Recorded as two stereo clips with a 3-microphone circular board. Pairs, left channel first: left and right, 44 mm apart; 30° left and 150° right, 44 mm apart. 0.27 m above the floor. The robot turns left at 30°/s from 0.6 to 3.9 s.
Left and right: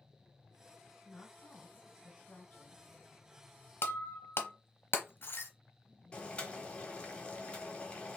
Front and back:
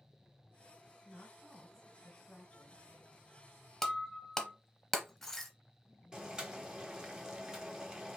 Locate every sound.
1.1 s a woman speaking: 110° left, 1.4 m; by 2.9 s 55° left, 1.4 m
3.8 s breaking glass: 115° left, 0.9 m
6.1 s boiling: 145° left, 1.0 m